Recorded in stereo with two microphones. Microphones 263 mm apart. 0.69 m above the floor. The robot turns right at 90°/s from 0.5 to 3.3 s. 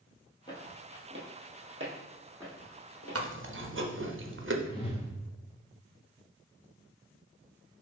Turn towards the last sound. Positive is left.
turn(degrees=20)  # may be behind; listen again after turning